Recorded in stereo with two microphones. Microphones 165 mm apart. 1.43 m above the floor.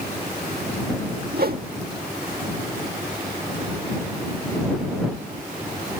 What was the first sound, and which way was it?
A whoosh, 65° right (ahead or behind).